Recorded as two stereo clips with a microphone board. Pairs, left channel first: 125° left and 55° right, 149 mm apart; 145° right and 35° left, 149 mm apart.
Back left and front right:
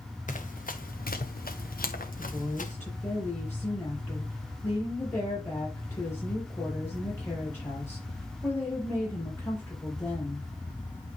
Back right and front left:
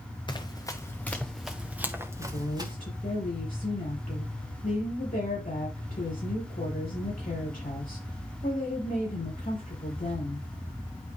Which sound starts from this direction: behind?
A woman speaking, at 2.2 s.